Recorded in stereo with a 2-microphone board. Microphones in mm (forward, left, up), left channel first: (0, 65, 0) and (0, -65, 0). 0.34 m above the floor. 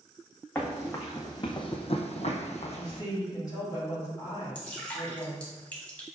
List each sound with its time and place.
0.6 s running footsteps: 20° left (ahead or behind), 1.1 m; by 3.0 s 50° left (ahead or behind), 0.7 m
2.8 s a woman speaking: 30° left (ahead or behind), 2.0 m
4.5 s dripping: 10° left (ahead or behind), 1.2 m